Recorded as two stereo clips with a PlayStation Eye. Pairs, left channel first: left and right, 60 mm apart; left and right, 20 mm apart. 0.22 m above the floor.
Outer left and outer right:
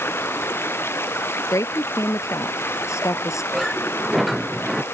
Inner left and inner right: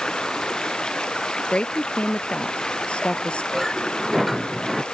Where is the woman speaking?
60° left (ahead or behind).